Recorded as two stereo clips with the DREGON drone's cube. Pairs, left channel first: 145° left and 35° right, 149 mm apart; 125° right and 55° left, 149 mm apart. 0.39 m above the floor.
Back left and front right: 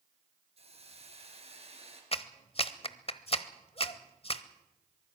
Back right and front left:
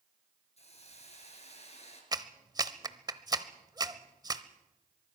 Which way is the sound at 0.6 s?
80° right.